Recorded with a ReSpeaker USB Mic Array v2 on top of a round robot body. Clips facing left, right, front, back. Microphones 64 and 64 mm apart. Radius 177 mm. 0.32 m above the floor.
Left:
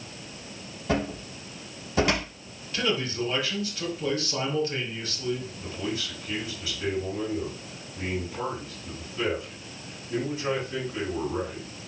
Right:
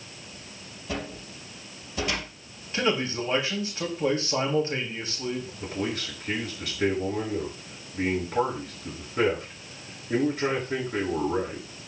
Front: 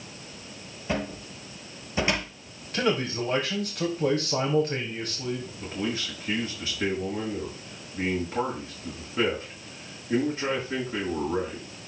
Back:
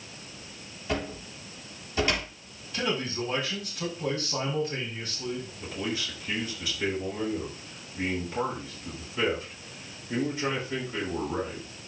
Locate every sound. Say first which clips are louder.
0.9 s a cupboard door: left 6 dB, front 2 dB; 70° left, 3.5 m
2.7 s a man speaking: right 2 dB, front 4 dB; 25° right, 4 m
5.6 s a man speaking: right 2 dB, front 2 dB; 55° right, 7 m